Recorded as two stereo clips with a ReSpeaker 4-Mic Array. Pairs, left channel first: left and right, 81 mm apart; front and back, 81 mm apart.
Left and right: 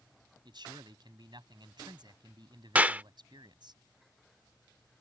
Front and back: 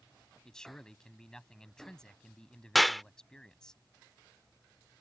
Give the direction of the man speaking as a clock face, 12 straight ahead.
3 o'clock.